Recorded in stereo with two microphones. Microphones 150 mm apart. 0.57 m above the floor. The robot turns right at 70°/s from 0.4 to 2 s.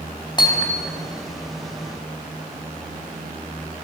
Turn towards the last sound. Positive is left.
turn(degrees=-100)